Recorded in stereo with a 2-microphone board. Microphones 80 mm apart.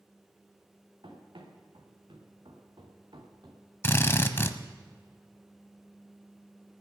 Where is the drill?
30° left (ahead or behind), 0.7 m.